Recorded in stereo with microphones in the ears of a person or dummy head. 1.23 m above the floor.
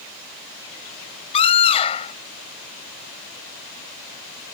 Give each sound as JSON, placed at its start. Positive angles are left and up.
{"t": 1.3, "sound": "a scream", "side_deg": 25}